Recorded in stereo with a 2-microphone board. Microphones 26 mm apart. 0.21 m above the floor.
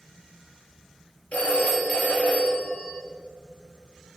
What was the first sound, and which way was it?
A phone ringing, 70° left (ahead or behind).